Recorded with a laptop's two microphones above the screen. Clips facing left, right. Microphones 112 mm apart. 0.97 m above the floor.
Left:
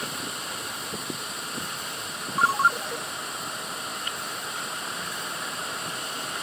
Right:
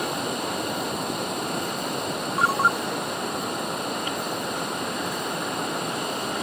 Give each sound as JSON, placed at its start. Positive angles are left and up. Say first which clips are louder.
{"t": 0.0, "sound": "running water", "louder": "right 8 dB", "side_deg": -60}
{"t": 2.4, "sound": "a ringtone", "louder": "even", "side_deg": 0}